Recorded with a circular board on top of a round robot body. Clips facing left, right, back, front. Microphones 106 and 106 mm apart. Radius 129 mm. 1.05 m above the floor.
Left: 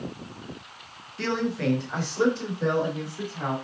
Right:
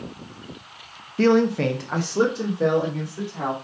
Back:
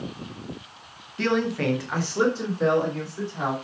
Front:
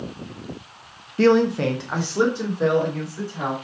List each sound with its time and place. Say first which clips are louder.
1.2 s a man speaking: right 9 dB, front 7 dB; 45° right, 0.8 m; by 3.5 s 80° right, 4.5 m